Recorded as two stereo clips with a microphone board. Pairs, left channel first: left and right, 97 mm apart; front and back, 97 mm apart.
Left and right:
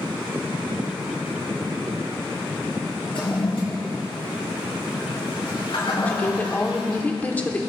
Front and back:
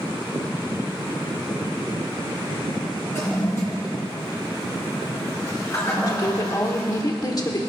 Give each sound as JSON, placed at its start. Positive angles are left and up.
{"t": 3.1, "sound": "a toilet flushing", "azimuth_deg": 60, "distance_m": 4.0}
{"t": 6.1, "sound": "a woman speaking", "azimuth_deg": 25, "distance_m": 1.2}